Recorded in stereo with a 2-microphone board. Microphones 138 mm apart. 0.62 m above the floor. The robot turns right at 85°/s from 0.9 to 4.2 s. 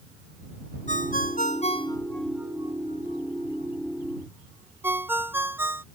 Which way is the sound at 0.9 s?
65° left (ahead or behind).